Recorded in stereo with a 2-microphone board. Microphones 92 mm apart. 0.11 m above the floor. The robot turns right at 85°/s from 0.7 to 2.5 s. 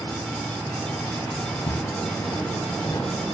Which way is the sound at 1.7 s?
65° left (ahead or behind).